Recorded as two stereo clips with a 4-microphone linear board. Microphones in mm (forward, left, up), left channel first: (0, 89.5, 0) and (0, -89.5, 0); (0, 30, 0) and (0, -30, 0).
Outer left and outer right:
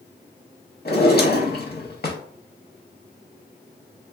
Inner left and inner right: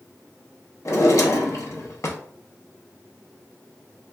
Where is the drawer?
60° left (ahead or behind), 0.6 m.